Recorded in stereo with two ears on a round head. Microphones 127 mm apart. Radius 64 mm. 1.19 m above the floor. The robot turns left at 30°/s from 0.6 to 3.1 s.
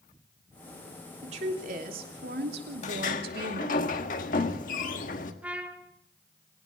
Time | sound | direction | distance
1.2 | a woman speaking | 45° right | 3 m
2.8 | a sliding door | 55° left (ahead or behind) | 1.6 m
5.4 | a trumpet | 10° right (ahead or behind) | 1.5 m